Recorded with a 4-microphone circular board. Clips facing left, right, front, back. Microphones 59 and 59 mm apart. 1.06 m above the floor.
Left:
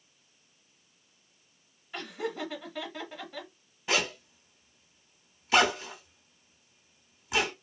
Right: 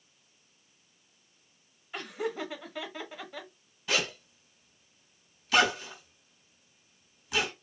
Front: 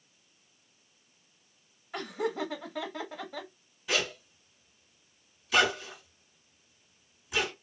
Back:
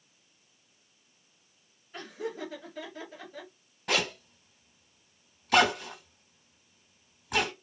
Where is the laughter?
5° right, 0.9 m.